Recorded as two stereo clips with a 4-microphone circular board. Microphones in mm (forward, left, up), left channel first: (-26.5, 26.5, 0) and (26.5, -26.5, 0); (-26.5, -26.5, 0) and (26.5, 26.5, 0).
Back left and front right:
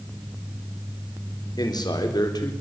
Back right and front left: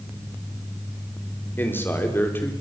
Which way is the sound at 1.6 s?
165° left.